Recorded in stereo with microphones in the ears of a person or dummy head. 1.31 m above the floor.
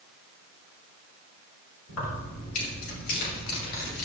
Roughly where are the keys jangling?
Left.